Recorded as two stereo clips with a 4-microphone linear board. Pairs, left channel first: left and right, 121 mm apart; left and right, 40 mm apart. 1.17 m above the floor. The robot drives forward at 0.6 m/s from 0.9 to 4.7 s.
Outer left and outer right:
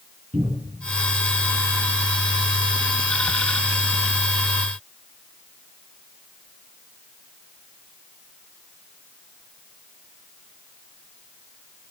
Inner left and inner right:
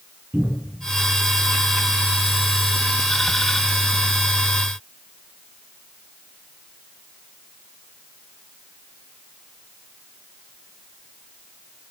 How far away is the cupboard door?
About 4 m.